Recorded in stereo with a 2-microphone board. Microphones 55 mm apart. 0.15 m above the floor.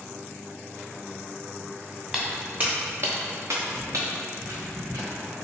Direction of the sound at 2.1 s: 20° right (ahead or behind).